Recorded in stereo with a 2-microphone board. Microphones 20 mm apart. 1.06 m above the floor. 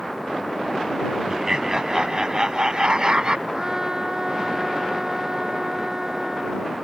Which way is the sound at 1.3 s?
25° right (ahead or behind).